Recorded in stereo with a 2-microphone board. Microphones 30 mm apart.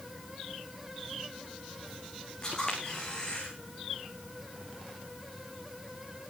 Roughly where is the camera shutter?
Left.